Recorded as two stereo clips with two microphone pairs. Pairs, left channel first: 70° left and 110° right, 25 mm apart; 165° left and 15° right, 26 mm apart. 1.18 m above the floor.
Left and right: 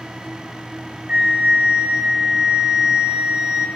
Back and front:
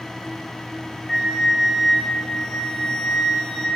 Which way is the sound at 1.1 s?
120° right.